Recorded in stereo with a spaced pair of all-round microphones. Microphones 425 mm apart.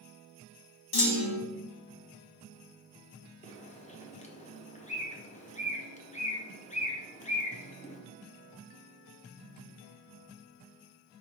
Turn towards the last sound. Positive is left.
turn(degrees=15)  # may be behind; listen again after turning